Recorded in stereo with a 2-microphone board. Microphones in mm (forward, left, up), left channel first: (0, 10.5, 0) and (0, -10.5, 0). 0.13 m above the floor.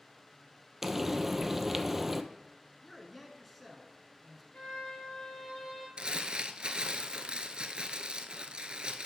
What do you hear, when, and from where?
0.8 s frying: 10° right (ahead or behind), 0.6 m
2.8 s a man speaking: 5° left (ahead or behind), 1.3 m
4.5 s a violin: 85° left, 2.5 m
6.0 s crumpling: 50° right (ahead or behind), 0.6 m